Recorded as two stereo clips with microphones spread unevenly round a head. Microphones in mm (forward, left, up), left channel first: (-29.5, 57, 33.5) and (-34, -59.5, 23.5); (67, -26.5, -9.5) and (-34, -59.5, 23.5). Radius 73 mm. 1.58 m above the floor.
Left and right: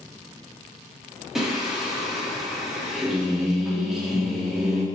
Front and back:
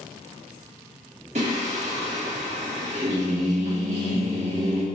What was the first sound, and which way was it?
Singing, straight behind.